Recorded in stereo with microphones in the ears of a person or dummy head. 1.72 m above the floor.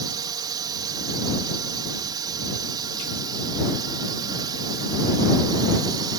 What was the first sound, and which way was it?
A drone, 20° right (ahead or behind).